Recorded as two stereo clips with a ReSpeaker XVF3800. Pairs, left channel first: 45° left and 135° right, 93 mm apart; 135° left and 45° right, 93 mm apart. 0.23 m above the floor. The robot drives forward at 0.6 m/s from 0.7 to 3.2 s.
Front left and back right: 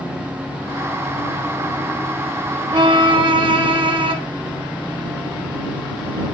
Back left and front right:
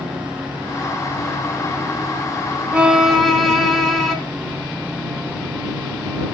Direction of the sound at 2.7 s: 120° right.